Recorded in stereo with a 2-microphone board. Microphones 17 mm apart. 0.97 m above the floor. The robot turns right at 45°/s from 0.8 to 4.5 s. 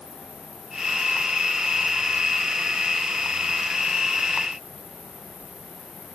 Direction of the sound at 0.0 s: 95° right.